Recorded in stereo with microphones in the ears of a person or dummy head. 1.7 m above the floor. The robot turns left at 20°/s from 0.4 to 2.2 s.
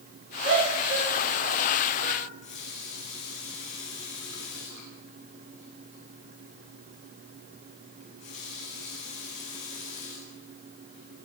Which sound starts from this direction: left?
A running tap, at 2.2 s.